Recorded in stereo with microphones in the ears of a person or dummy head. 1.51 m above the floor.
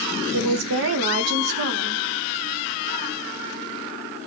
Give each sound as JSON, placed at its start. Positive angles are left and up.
{"t": 0.3, "sound": "a woman speaking", "side_deg": -80, "distance_m": 0.7}